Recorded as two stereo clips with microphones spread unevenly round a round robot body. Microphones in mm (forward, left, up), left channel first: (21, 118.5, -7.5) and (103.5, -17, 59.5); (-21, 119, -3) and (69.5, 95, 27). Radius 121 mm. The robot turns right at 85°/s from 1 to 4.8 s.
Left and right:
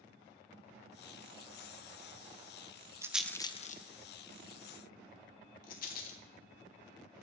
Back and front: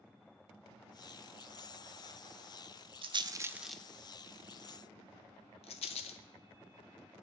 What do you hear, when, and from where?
3.0 s a rattle: 15° left, 0.5 m; by 6.2 s 170° left, 0.5 m